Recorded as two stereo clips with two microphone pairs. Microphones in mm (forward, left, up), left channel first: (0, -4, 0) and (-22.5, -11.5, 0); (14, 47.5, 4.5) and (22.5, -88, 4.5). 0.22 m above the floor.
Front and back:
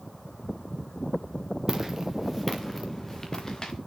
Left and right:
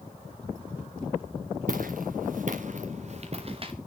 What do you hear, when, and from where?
1.7 s footsteps: 85° right, 1.8 m; by 3.7 s 40° right, 1.9 m